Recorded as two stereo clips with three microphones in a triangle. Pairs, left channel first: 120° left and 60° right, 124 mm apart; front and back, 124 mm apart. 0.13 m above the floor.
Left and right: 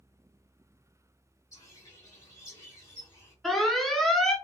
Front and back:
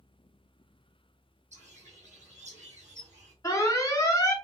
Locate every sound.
1.5 s a bird: straight behind, 1.9 m
3.4 s an alarm: 30° left, 0.8 m